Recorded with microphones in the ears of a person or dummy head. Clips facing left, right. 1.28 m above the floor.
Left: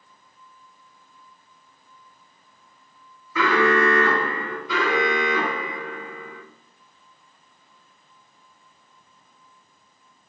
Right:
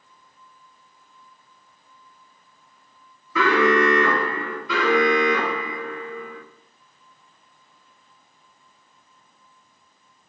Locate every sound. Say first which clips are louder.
3.4 s an alarm: right 1 dB; 60° right (ahead or behind), 0.6 m
4.7 s an alarm: right 4 dB; 70° right (ahead or behind), 0.8 m